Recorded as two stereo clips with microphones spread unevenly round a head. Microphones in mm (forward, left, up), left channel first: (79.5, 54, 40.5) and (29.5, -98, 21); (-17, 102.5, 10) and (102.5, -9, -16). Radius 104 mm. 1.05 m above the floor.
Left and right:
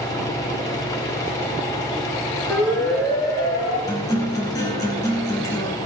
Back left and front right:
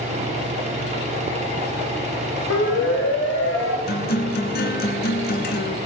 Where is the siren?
150° left, 2 m; by 3.8 s 140° left, 2.5 m.